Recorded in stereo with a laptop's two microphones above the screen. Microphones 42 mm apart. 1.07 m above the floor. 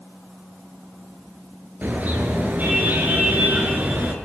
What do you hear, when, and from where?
1.8 s a car horn: 45° right (ahead or behind), 9 m; by 4.2 s 35° right (ahead or behind), 7.5 m